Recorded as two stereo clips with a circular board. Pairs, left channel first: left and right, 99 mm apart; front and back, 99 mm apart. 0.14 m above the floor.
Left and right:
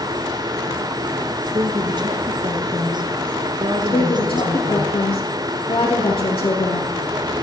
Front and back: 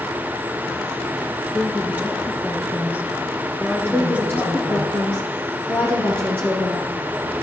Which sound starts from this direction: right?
A woman speaking, at 1.5 s.